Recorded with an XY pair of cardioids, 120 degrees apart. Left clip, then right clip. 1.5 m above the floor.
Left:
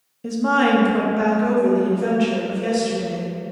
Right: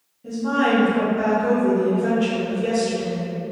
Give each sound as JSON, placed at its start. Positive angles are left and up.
{"t": 0.2, "sound": "a woman speaking", "azimuth_deg": 65, "distance_m": 0.6}